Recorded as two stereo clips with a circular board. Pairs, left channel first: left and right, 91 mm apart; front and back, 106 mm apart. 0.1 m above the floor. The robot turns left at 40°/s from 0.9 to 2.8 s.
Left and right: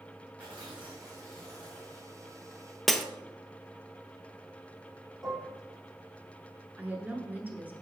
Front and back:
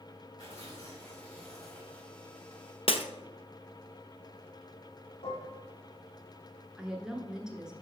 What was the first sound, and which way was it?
Tearing paper, 165° right.